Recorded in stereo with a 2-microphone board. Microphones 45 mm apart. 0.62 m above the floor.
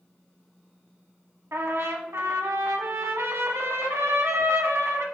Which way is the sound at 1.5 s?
75° right (ahead or behind).